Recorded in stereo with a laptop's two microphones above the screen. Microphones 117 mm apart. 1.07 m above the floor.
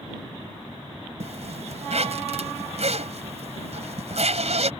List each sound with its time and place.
1.2 s a zipper: 65° right (ahead or behind)